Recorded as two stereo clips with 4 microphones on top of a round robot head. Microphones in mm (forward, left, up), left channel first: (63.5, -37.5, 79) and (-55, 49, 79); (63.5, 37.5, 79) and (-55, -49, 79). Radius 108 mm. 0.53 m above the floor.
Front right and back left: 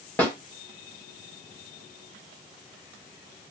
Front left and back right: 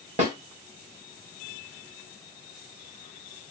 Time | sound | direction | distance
0.2 | a snare drum | 115° right | 1.9 m